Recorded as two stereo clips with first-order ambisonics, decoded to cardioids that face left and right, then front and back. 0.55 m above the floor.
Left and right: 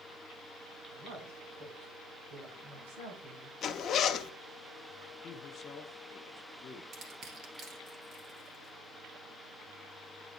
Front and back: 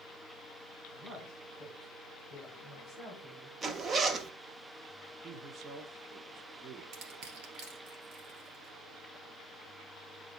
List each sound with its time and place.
0.9 s a woman speaking: 140° right, 5.5 m; by 3.5 s 110° right, 5 m
3.6 s a zipper: 125° left, 0.5 m
5.2 s a man speaking: 135° left, 0.7 m
6.9 s crushing: 150° right, 2 m